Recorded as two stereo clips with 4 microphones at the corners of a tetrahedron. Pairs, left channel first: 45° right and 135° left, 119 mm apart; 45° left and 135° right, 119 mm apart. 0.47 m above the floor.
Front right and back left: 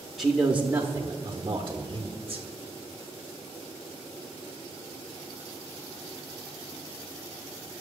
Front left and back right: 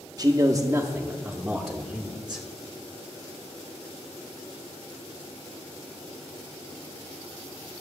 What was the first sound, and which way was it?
A man speaking, 140° right.